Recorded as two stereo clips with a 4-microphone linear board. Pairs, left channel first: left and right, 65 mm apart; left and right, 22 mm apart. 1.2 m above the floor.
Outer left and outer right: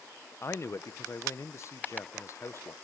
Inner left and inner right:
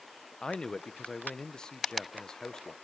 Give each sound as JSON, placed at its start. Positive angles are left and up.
{"t": 0.4, "sound": "a man speaking", "side_deg": 45, "distance_m": 0.8}